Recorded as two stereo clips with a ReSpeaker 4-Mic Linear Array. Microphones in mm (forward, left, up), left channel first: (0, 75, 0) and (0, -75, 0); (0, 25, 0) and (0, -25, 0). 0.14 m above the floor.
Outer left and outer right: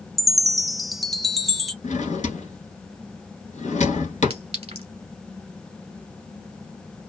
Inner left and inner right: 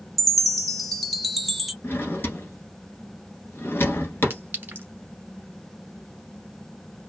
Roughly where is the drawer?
Left.